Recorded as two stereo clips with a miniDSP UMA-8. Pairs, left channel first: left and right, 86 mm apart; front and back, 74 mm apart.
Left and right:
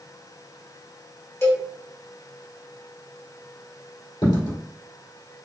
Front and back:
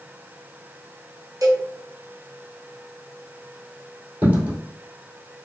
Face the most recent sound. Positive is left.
turn(degrees=115)